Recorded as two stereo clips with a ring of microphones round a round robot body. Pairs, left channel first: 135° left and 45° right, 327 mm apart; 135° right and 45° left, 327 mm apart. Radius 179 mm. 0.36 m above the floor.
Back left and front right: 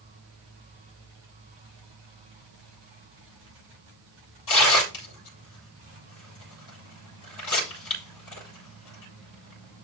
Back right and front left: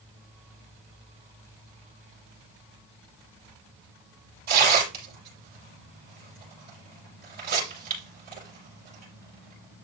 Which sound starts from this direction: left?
Tearing paper, at 4.5 s.